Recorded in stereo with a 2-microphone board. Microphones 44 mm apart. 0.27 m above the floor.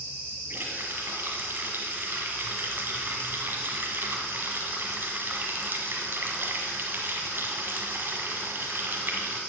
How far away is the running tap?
About 1.4 m.